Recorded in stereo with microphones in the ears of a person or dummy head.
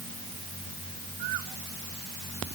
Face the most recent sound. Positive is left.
No sound to turn to.